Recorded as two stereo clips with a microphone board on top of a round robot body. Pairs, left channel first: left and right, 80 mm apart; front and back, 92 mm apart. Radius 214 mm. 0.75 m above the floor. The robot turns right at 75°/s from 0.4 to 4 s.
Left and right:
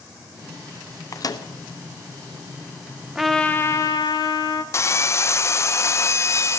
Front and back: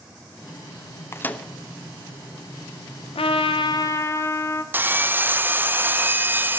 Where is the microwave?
55° left, 1.2 m; by 1.5 s 80° left, 1.2 m.